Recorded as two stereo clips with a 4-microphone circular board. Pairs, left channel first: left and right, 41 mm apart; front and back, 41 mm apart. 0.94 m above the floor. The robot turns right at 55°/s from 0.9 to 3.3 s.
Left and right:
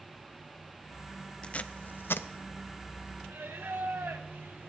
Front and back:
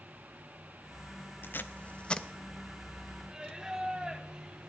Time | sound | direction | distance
1.4 | tape being pulled | 25° left | 0.6 m
3.3 | singing | 110° right | 1.4 m